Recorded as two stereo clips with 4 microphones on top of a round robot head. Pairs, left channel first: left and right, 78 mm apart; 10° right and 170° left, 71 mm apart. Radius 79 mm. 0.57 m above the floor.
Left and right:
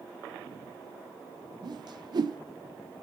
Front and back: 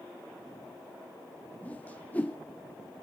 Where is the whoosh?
75° right, 1.4 m.